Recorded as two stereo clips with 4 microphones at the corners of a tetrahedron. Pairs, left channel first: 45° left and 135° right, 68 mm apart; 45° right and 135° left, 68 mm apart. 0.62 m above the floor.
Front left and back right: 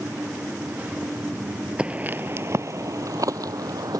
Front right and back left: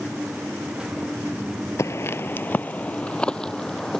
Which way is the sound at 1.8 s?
65° right.